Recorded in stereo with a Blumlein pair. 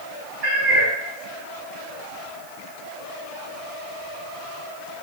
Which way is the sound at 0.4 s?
30° right.